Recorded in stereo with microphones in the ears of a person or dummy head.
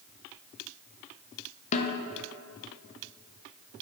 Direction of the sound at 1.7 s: 35° left (ahead or behind).